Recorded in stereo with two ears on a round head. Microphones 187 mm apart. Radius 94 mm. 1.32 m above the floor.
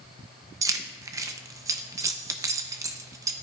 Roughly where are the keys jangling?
Centre.